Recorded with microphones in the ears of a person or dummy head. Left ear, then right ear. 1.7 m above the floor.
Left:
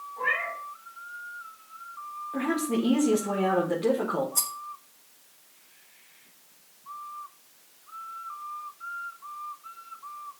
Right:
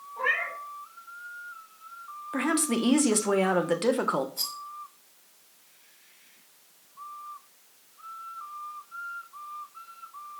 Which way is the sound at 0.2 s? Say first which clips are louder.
Even; 25° right (ahead or behind).